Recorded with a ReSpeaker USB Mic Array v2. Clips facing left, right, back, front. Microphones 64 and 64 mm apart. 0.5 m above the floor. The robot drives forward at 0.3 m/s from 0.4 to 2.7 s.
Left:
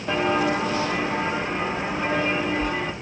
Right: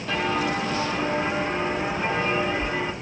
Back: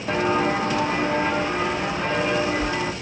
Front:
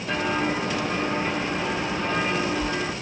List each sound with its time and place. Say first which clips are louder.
0.1 s footsteps: left 3 dB, back 4 dB; 145° left, 0.6 m; by 2.9 s straight behind, 2.5 m